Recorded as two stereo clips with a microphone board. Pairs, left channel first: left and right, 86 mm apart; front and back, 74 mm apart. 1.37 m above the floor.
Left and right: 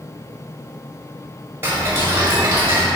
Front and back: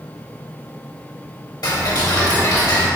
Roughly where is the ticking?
Ahead right.